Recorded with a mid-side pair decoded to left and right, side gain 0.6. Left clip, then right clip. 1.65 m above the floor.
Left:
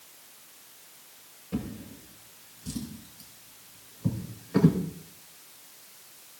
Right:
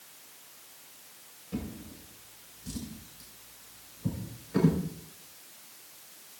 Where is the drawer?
30° left, 4 m.